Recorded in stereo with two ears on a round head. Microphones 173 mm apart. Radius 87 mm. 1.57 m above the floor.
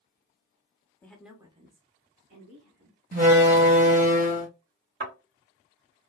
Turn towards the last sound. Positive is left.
turn(degrees=-60)  # may be behind; listen again after turning